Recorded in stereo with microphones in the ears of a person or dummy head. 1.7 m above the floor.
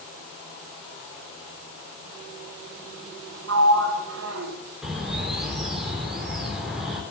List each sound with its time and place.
3.5 s a sliding door: 80° right, 1.7 m
4.8 s a bird: centre (ahead or behind), 3 m